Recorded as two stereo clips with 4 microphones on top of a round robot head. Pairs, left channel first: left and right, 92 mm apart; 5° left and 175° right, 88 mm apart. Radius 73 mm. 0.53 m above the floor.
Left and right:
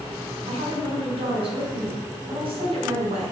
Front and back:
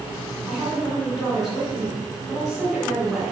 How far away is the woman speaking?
About 2.5 m.